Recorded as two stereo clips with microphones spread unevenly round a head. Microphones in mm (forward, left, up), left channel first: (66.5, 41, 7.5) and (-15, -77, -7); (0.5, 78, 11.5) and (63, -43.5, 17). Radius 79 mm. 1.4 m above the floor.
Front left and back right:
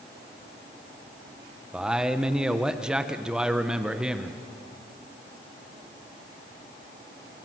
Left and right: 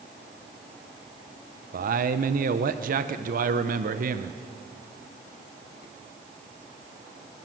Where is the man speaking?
40° right, 0.9 m.